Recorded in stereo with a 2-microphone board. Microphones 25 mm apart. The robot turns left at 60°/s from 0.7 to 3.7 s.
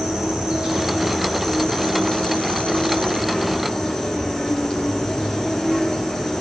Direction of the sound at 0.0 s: 140° right.